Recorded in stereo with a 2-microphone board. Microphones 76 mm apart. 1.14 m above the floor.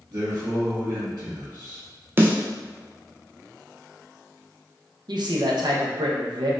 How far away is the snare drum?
About 0.5 m.